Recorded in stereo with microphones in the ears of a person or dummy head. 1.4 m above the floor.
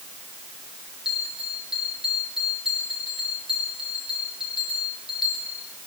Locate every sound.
1.1 s a bell: 5° right (ahead or behind), 9.5 m